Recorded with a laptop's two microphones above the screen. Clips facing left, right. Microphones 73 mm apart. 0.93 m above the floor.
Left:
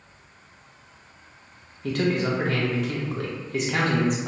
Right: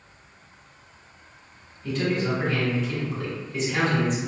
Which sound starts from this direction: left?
A man speaking, at 1.8 s.